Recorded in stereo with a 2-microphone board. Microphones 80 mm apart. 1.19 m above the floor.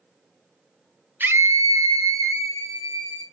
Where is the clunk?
I don't hear a clunk.